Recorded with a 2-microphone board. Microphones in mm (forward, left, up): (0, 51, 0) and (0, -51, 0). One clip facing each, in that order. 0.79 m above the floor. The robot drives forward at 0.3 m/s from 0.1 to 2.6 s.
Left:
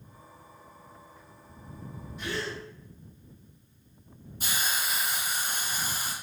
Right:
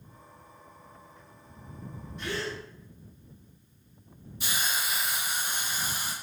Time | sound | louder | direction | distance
2.2 | a gasp | even | 5° left (ahead or behind) | 1.1 m
4.4 | a hiss | even | 40° left (ahead or behind) | 1.0 m